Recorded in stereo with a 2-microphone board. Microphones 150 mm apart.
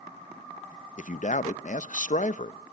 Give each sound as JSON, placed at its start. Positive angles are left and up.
{"t": 1.0, "sound": "a man speaking", "side_deg": 60, "distance_m": 0.7}